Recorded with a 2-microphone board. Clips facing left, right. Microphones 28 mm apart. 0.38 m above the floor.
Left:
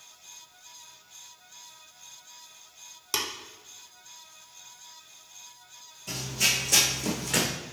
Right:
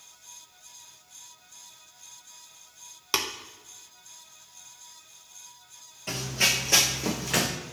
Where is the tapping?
35° right (ahead or behind), 0.6 m.